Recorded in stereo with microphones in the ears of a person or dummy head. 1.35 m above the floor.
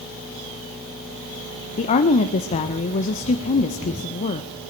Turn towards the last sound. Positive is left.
turn(degrees=35)  # may be behind; listen again after turning